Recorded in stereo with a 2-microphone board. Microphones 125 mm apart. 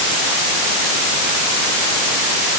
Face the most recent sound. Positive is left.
No sound to turn to.